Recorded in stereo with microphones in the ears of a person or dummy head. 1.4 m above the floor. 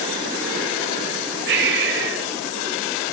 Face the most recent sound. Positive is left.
turn(degrees=-70)  # may be behind; listen again after turning